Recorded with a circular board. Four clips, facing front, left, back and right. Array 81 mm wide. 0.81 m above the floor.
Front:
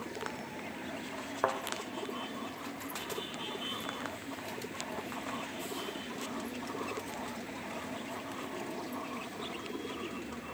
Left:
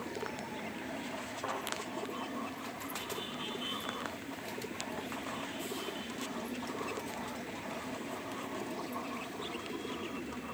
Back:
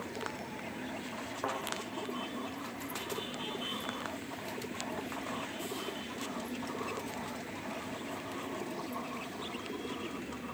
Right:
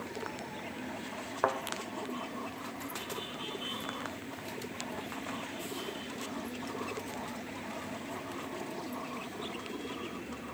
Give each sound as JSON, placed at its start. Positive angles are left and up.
{"t": 1.4, "sound": "a thud", "azimuth_deg": -60, "distance_m": 0.9}